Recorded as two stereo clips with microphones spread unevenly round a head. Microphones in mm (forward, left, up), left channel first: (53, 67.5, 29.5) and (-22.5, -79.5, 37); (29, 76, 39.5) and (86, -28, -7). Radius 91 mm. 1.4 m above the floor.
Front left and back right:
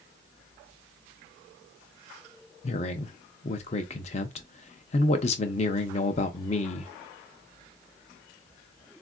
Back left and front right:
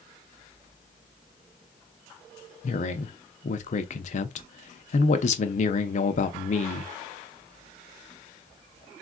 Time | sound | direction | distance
2.6 | a man speaking | 120° left | 0.5 m